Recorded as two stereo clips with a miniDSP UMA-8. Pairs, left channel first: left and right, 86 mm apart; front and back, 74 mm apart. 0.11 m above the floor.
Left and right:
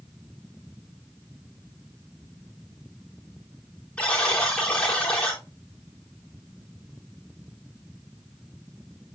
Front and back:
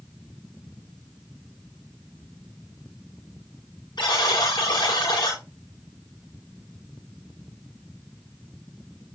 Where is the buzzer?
10° left, 4.5 m.